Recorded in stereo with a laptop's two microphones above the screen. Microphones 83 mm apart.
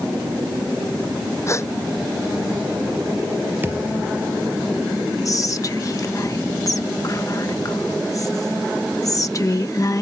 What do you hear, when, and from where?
1.5 s a gasp: 35° left (ahead or behind)
3.6 s a thud: 25° right (ahead or behind)
5.2 s whispering: 40° left (ahead or behind)